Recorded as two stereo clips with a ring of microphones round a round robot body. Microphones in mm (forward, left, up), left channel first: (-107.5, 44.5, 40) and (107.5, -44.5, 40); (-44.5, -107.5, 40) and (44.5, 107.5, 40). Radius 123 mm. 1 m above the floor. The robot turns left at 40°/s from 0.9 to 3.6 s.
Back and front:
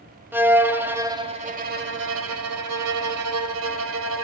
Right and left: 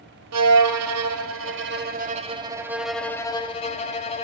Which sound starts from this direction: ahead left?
A violin, at 0.3 s.